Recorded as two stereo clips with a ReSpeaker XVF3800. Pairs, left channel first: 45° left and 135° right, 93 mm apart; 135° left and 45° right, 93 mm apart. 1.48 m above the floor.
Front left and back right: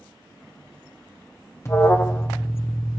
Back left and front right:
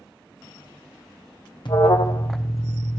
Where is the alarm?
105° left, 1.0 m.